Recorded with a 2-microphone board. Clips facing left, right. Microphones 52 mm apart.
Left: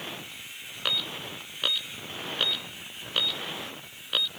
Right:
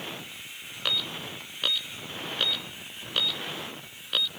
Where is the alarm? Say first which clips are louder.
Even; 5° left (ahead or behind).